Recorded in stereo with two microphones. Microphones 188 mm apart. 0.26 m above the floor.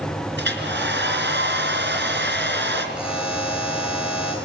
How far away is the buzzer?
About 9 m.